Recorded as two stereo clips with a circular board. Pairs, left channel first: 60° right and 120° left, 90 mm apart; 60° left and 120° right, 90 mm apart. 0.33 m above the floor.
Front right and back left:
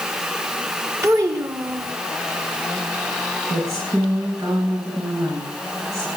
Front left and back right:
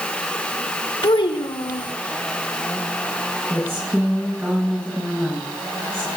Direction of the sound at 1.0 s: 65° left.